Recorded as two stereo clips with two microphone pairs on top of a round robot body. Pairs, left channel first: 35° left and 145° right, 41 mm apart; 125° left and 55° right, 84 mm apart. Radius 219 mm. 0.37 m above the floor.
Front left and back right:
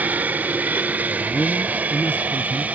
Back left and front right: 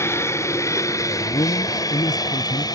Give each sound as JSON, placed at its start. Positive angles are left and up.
{"t": 0.0, "sound": "an aircraft", "azimuth_deg": 180}
{"t": 1.1, "sound": "a man speaking", "azimuth_deg": 85}